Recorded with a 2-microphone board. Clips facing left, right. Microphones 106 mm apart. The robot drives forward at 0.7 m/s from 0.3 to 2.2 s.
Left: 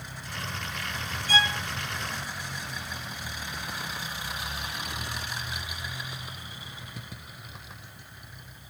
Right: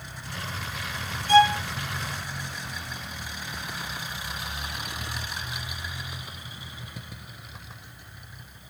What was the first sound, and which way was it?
A violin, 55° right (ahead or behind).